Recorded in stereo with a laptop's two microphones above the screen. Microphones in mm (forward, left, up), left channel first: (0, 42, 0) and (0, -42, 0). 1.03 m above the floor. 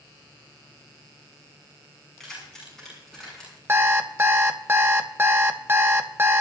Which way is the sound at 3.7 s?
25° right (ahead or behind).